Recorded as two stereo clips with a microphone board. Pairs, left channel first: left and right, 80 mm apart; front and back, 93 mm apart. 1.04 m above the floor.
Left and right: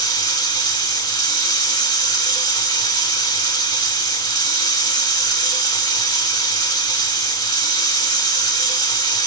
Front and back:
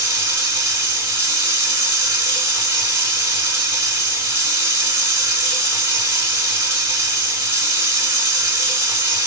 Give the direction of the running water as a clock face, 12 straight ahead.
8 o'clock.